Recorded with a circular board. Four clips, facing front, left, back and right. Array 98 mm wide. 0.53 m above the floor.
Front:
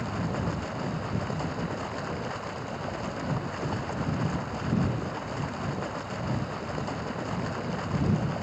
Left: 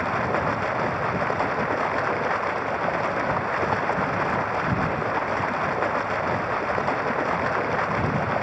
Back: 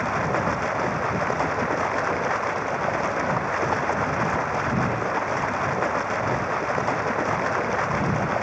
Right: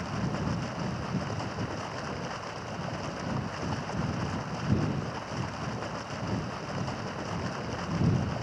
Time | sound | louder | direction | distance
0.0 | running water | left 10 dB, back 8 dB | 135° left | ?